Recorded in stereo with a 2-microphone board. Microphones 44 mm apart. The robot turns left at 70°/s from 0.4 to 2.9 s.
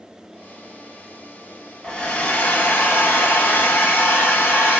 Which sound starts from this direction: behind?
A hair dryer, at 1.8 s.